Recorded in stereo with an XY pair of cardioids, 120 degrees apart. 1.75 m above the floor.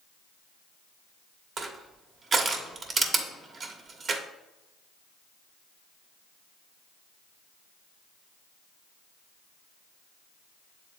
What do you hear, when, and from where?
1.6 s crushing: 35° right, 1.1 m